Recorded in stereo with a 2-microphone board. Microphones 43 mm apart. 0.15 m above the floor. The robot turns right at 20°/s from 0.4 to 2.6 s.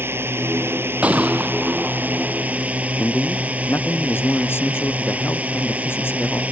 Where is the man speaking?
60° left (ahead or behind).